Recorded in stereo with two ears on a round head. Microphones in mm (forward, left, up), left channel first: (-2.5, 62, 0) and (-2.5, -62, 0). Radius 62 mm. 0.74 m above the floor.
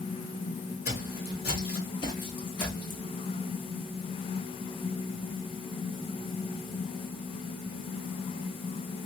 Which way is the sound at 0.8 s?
50° left (ahead or behind).